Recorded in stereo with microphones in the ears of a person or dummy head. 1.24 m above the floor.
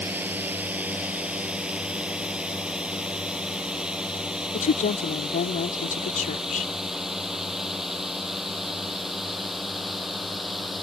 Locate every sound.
0.0 s a drone: 10° right (ahead or behind); by 10.8 s centre (ahead or behind)
4.5 s a woman speaking: 45° left (ahead or behind)